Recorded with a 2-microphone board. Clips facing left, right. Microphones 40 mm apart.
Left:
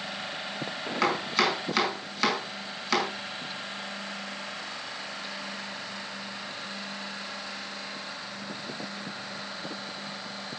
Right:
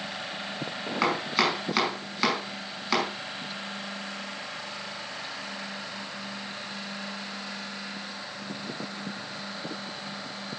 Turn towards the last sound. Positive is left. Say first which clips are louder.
# even
turn(degrees=-5)  # may be behind; listen again after turning